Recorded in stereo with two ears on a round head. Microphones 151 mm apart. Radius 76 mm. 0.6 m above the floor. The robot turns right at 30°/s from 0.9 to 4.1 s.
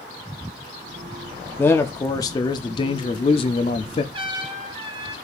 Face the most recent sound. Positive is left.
turn(degrees=-30)  # may be behind; listen again after turning